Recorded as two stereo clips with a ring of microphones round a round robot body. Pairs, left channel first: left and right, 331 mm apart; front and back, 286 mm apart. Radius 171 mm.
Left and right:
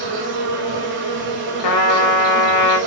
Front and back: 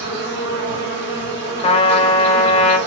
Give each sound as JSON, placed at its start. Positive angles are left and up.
{"t": 0.0, "sound": "an insect", "azimuth_deg": -150, "distance_m": 0.8}
{"t": 1.6, "sound": "a trumpet", "azimuth_deg": 70, "distance_m": 0.9}